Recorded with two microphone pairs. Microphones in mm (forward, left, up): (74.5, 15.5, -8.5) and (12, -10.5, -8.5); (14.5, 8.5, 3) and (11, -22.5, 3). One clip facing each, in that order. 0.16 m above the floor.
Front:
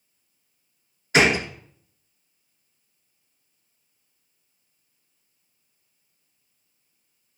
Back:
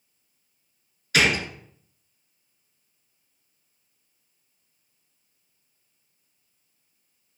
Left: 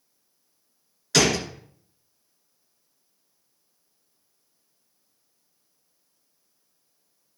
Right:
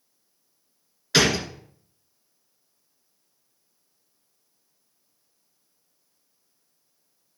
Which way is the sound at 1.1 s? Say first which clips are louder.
Front 3 dB, right 1 dB; 35° right.